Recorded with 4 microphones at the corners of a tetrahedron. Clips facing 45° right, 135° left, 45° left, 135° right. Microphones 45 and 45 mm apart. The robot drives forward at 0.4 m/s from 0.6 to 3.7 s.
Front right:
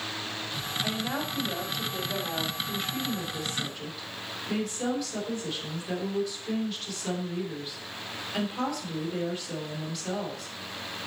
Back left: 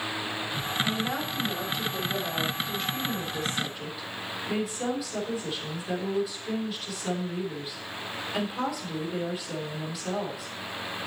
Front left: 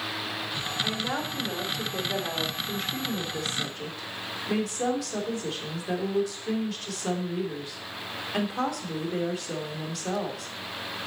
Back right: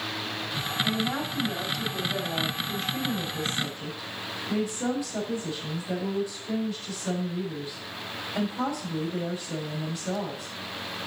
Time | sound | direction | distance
0.8 | a woman speaking | 40° left | 4 m